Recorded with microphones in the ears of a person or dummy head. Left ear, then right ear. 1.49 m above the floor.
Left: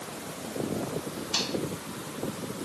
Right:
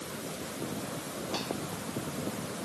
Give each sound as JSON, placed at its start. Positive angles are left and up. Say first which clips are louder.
{"t": 1.3, "sound": "a microwave", "louder": "left 7 dB", "side_deg": 30}